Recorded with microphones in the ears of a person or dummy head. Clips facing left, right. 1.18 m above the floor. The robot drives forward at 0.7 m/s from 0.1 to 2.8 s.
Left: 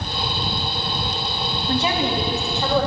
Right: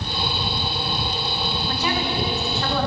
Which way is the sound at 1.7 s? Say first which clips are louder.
Left 6 dB; 30° left (ahead or behind).